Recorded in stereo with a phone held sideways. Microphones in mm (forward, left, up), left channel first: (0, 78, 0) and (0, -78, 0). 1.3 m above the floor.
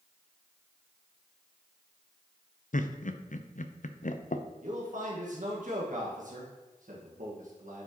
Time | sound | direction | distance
2.7 | laughter | 60° left (ahead or behind) | 0.7 m
4.6 | a man speaking | 65° right (ahead or behind) | 1.6 m